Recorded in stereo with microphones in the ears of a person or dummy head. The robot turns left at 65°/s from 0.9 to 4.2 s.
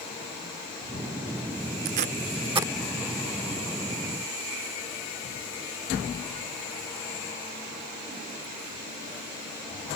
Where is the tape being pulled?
65° right (ahead or behind); by 2.7 s 10° right (ahead or behind).